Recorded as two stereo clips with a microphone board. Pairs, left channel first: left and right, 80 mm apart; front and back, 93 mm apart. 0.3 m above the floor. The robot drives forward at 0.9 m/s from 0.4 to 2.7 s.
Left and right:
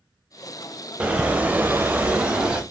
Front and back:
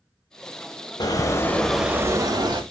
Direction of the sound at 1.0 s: 15° right.